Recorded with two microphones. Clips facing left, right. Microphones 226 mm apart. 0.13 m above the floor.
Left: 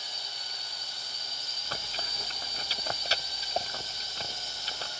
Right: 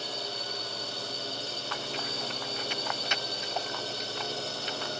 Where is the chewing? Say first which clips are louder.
Right 3 dB; 35° left (ahead or behind).